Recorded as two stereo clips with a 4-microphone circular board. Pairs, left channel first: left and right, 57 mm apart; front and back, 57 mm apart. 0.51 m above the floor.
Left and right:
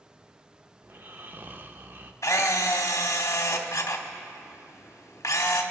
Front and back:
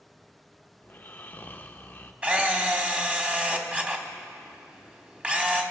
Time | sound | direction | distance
0.8 | snoring | 50° right | 0.6 m
2.2 | a camera shutter | 115° left | 1.0 m